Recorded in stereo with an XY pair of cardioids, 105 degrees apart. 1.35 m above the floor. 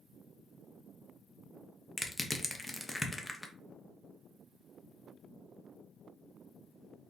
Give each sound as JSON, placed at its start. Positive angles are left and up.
{"t": 2.0, "sound": "crushing", "azimuth_deg": 10, "distance_m": 0.6}